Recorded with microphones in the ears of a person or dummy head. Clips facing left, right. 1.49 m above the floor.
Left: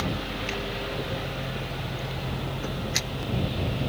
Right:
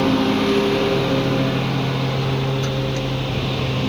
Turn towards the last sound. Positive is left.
turn(degrees=-90)